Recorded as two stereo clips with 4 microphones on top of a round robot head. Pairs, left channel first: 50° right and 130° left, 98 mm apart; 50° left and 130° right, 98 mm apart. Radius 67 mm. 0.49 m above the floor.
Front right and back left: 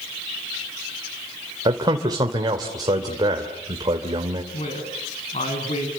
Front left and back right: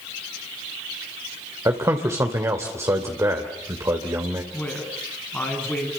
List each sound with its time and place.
1.6 s a man speaking: 170° left, 2.5 m
4.5 s a woman speaking: 30° right, 6.5 m